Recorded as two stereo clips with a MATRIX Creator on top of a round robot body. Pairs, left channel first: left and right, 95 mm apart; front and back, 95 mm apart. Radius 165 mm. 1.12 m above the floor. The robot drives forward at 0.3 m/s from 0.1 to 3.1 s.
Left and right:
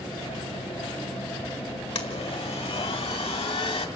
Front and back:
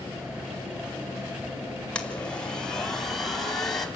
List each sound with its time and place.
1.9 s a blender: 80° left, 2.5 m; by 3.9 s 85° left, 2.5 m